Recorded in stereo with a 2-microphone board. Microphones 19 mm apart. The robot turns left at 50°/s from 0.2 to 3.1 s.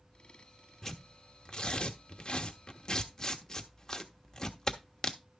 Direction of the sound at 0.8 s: 25° left (ahead or behind).